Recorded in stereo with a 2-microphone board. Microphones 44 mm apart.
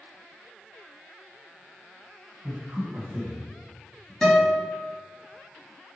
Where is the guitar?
15° left (ahead or behind), 1.9 m.